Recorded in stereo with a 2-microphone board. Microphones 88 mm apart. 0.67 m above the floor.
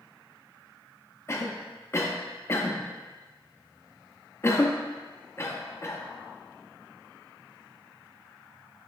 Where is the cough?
30° left (ahead or behind), 0.8 m.